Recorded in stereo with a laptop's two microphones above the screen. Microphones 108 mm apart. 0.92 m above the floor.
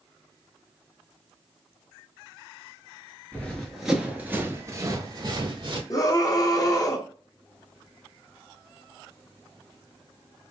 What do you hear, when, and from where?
3.3 s running footsteps: 15° left (ahead or behind), 0.9 m; by 5.8 s 50° right (ahead or behind), 1.3 m
5.9 s a scream: 35° left (ahead or behind), 0.9 m